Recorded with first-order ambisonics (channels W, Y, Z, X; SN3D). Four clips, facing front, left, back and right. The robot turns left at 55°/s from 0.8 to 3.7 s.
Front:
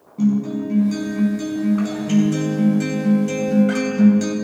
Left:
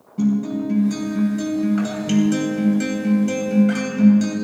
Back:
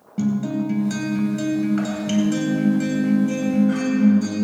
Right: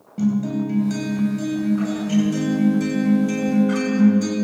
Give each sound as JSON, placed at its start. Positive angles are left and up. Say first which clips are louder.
{"t": 0.2, "sound": "a guitar", "louder": "left 1 dB, front 3 dB", "azimuth_deg": -165, "distance_m": 3.0}